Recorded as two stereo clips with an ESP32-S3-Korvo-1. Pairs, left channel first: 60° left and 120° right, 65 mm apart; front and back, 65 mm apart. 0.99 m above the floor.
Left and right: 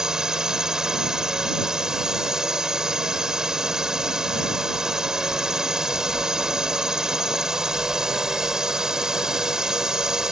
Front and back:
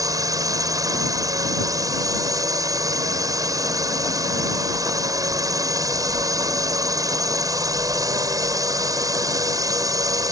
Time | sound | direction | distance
0.0 | a drone | 160° left | ?